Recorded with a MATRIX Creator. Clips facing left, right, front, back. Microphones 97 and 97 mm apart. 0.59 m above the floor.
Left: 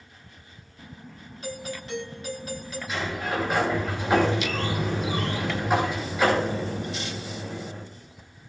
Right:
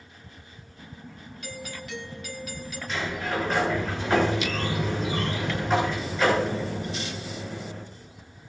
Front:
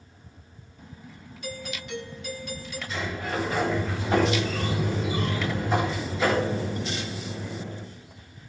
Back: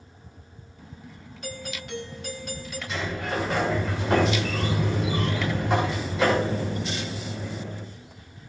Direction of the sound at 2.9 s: 170° left.